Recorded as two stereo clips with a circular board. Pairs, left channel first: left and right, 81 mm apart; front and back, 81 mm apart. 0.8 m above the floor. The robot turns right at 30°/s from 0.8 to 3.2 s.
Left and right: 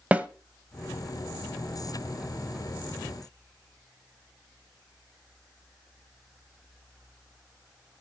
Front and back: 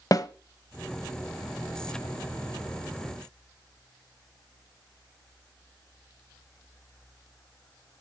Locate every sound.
0.1 s a snare drum: 20° right, 0.9 m